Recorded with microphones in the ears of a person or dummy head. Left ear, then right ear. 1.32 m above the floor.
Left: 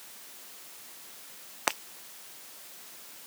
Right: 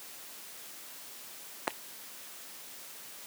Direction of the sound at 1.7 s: 45° left (ahead or behind).